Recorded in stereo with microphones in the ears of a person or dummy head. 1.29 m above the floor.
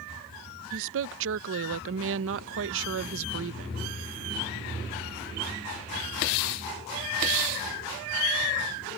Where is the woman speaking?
75° right (ahead or behind).